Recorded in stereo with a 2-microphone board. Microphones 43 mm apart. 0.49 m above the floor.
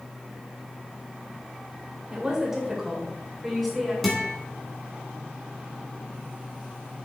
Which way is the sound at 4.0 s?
5° left (ahead or behind).